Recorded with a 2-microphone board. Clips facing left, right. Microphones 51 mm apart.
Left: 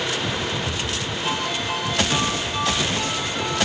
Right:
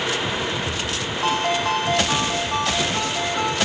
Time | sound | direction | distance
1.2 | a ringtone | 65° right (ahead or behind) | 9 m